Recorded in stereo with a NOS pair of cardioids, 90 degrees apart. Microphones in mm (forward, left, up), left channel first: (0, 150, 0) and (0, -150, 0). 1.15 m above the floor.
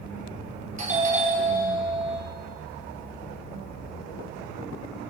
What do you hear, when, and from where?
0.8 s a doorbell: 25° right, 5.5 m